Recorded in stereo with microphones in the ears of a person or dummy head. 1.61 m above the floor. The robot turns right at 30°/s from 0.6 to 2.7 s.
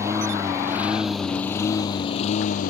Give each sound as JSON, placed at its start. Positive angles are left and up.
{"t": 0.0, "sound": "a lawn mower", "azimuth_deg": -15}